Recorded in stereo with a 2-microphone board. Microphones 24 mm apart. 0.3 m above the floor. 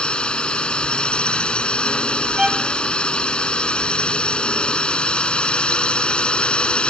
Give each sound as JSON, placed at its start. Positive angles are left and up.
{"t": 0.0, "sound": "a drone", "side_deg": 45}
{"t": 2.4, "sound": "a violin", "side_deg": -20}